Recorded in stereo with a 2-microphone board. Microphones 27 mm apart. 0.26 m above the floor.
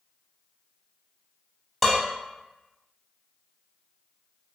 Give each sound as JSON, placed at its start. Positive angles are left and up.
{"t": 1.8, "sound": "dishes clattering", "side_deg": 10, "distance_m": 0.9}